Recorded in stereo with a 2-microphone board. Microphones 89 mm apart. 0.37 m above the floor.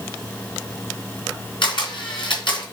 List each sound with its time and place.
1.6 s a camera shutter: 70° left (ahead or behind), 3.5 m